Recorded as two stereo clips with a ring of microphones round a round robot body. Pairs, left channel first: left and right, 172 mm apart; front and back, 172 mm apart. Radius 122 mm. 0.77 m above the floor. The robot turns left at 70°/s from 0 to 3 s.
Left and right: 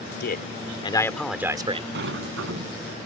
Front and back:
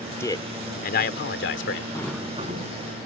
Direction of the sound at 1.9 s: 80° right.